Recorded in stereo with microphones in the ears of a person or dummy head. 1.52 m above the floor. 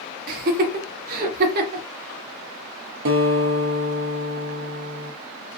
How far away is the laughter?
About 0.7 m.